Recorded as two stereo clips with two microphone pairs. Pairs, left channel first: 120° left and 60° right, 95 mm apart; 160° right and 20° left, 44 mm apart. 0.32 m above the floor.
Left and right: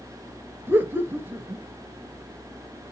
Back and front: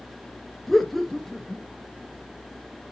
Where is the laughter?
80° right, 0.9 m.